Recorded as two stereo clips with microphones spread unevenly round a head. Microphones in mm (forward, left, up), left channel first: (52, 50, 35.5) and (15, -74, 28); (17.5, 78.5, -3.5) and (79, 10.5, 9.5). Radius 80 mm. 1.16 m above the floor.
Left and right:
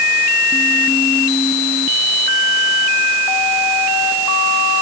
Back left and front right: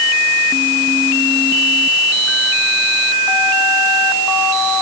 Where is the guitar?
No guitar in this recording.